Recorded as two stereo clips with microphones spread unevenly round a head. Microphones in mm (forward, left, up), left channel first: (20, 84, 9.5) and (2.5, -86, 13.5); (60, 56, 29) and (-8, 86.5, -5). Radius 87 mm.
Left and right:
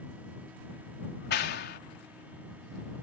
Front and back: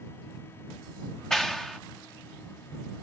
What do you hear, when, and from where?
1.3 s a clap: 55° left